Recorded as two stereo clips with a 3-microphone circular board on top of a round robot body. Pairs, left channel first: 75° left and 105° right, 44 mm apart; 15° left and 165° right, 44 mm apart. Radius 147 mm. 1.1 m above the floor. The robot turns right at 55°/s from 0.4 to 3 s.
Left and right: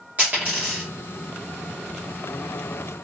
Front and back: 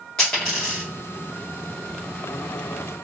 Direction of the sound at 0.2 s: 55° right.